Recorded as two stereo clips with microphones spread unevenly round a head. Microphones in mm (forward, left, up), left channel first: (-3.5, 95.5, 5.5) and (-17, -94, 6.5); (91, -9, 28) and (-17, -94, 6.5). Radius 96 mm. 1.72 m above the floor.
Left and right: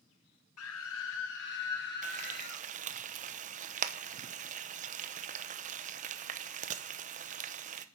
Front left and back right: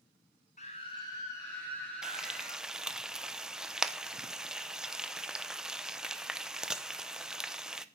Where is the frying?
50° right, 0.9 m.